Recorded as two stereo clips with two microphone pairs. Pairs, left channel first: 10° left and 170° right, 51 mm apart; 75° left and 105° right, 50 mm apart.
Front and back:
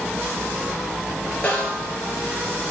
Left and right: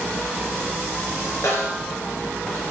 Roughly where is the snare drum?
Left.